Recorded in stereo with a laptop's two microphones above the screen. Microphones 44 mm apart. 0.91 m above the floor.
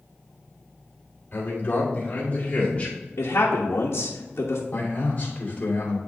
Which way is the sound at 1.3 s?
45° left (ahead or behind).